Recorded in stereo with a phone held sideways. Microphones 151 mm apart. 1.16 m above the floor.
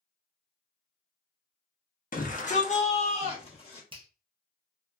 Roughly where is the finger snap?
Right.